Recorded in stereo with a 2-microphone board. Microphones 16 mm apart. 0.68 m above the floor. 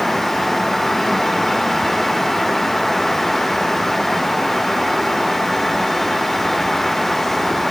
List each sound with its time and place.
Only background noise.